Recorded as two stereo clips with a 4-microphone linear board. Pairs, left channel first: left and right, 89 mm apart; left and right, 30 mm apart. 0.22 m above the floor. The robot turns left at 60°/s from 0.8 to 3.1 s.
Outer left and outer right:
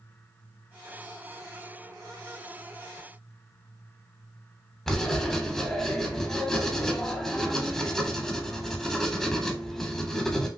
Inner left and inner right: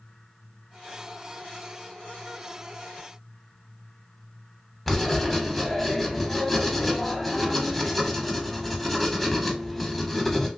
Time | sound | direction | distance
4.9 | writing | 5° left (ahead or behind) | 0.7 m